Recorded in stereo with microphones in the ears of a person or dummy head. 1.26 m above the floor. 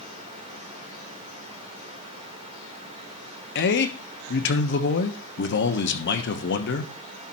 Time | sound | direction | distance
3.5 | a man speaking | 60° left (ahead or behind) | 1.1 m